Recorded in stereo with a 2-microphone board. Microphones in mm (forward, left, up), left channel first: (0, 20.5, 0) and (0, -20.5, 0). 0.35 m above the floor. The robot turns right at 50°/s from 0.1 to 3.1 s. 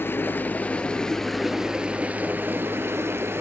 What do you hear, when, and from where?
0.0 s running water: 115° left, 0.8 m; by 3.4 s 95° right, 0.8 m